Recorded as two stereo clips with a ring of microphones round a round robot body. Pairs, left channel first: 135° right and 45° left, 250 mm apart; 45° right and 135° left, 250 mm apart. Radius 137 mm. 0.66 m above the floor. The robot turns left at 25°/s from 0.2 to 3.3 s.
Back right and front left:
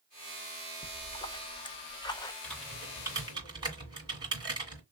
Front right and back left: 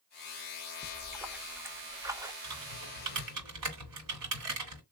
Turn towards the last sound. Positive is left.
turn(degrees=120)